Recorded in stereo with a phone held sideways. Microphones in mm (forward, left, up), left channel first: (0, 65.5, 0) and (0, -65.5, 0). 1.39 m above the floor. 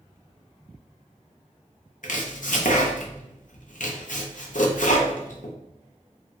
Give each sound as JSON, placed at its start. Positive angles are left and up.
{"t": 2.0, "sound": "chopping", "side_deg": 75, "distance_m": 0.6}